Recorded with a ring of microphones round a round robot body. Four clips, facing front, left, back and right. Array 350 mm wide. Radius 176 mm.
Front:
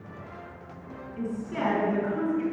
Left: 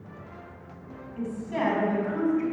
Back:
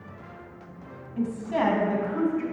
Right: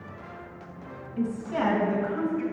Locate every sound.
1.2 s a woman speaking: 175° right, 2.5 m; by 2.4 s 160° left, 3.5 m